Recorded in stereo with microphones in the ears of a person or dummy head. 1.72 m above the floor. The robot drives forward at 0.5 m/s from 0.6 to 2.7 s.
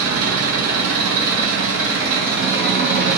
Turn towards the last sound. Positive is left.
turn(degrees=-60)  # may be behind; listen again after turning